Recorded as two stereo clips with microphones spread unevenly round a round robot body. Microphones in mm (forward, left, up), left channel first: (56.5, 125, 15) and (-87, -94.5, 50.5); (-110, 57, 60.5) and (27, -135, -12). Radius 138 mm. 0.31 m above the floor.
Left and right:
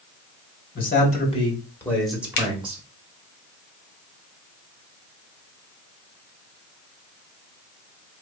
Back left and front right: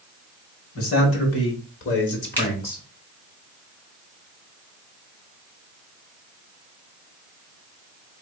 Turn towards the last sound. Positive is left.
turn(degrees=30)